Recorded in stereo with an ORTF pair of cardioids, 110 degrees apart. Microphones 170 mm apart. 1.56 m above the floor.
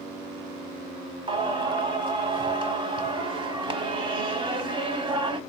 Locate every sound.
1.3 s singing: 30° right, 1.0 m